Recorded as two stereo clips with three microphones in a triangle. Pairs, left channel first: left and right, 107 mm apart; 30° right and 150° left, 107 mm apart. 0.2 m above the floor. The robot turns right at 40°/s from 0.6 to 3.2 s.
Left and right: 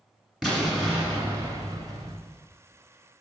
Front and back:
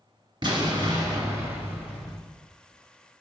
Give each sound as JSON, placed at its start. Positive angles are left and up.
{"t": 0.4, "sound": "an explosion", "azimuth_deg": 180, "distance_m": 1.5}